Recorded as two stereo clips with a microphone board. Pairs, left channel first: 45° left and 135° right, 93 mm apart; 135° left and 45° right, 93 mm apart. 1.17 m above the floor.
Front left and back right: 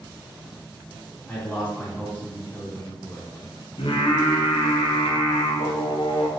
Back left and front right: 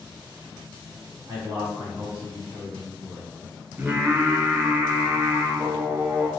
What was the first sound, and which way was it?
A man speaking, 30° right.